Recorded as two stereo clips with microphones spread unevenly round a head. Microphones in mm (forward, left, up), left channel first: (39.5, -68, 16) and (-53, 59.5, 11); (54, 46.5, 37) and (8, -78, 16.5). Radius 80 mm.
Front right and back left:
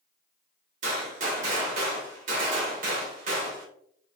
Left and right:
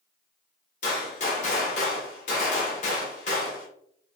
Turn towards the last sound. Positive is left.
turn(degrees=90)